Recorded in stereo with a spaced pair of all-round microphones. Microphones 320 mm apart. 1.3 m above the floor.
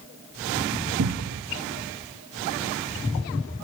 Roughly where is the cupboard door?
Right.